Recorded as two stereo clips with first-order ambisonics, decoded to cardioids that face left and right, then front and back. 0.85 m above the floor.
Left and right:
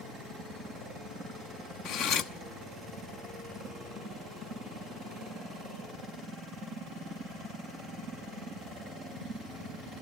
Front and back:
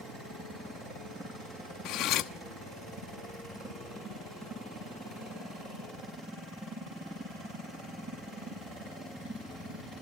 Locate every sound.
1.9 s cutlery clinking: 45° left, 0.8 m